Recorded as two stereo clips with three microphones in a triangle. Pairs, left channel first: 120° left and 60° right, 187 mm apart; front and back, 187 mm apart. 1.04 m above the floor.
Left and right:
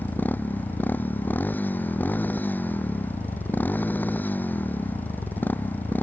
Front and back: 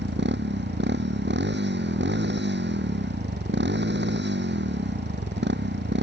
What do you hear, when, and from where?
0.0 s a motorcycle: 160° right